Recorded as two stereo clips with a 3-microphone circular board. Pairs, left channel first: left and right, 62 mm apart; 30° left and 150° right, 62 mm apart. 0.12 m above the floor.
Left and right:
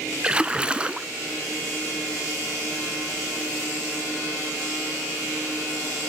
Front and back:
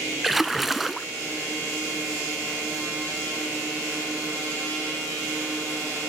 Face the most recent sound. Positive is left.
turn(degrees=-65)